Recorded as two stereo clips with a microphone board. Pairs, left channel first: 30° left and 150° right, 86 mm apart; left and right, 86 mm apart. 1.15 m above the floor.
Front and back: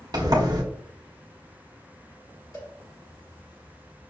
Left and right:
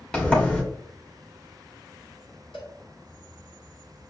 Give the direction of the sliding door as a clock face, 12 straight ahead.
6 o'clock.